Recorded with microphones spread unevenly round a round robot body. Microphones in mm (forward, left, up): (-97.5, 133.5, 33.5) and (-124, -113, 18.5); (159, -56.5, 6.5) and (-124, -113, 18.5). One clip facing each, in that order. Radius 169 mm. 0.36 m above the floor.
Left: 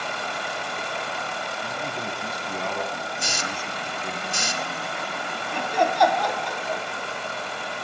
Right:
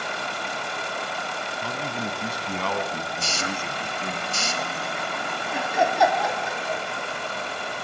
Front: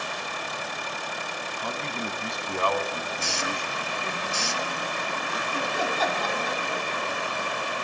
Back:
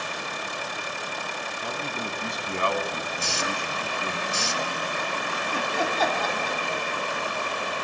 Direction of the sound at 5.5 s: Straight behind.